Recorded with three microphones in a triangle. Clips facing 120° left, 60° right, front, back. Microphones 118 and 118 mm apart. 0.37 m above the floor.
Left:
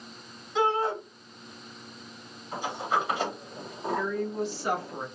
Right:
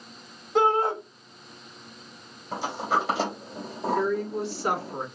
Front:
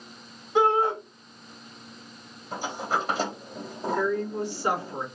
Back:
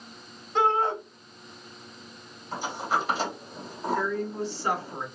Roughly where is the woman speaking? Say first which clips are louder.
Right 3 dB, front 4 dB; right.